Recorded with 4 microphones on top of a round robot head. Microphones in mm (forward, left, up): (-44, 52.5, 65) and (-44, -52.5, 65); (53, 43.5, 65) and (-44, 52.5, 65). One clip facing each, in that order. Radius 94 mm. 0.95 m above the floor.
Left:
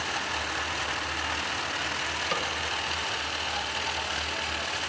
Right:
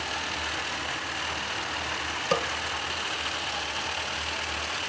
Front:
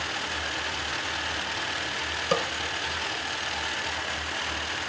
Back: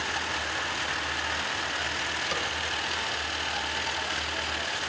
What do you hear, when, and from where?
2.3 s a snare drum: 45° right, 0.8 m